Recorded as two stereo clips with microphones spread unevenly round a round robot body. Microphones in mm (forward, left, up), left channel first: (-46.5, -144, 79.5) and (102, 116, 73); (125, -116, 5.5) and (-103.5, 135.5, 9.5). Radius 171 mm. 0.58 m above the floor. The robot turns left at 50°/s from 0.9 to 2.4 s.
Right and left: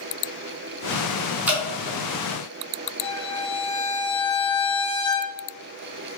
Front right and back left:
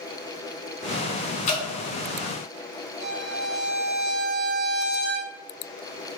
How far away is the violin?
About 1.0 m.